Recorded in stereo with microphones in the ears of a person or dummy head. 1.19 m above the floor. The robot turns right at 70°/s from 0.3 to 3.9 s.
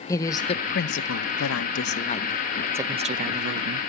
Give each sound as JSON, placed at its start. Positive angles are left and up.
{"t": 0.1, "sound": "a woman speaking", "azimuth_deg": 15, "distance_m": 0.8}